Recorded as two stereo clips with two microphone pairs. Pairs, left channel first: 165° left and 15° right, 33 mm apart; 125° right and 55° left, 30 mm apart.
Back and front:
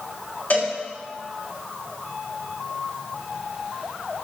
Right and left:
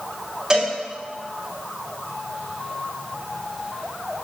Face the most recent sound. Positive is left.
turn(degrees=125)